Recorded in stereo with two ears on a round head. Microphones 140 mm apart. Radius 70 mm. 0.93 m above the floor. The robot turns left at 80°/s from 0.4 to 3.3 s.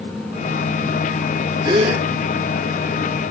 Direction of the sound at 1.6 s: 25° right.